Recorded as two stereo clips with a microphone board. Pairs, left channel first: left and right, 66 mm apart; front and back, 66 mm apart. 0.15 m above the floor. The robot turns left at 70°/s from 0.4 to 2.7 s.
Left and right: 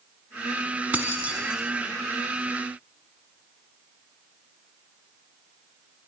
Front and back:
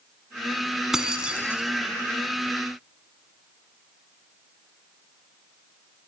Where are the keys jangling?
105° right, 0.9 m; by 1.6 s 155° right, 0.9 m.